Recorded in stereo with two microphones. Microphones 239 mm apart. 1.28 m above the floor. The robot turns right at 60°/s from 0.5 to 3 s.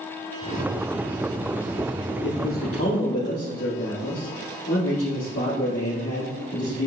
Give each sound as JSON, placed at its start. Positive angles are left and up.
{"t": 2.2, "sound": "a man speaking", "azimuth_deg": 45, "distance_m": 3.0}